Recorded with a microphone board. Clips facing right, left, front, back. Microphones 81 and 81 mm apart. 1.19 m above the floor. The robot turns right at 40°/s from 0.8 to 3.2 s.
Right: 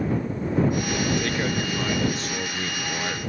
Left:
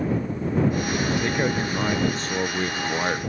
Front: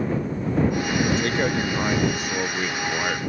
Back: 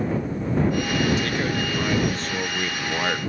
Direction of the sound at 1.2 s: 25° left.